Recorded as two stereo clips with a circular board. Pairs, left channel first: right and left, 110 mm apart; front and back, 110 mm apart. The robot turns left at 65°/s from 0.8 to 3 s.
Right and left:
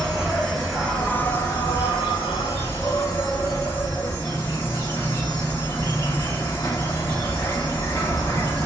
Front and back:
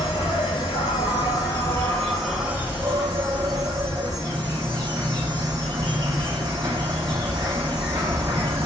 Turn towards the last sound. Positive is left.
turn(degrees=-145)